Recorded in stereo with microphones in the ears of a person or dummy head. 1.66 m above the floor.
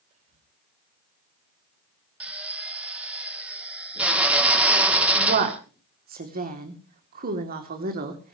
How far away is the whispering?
About 5.5 m.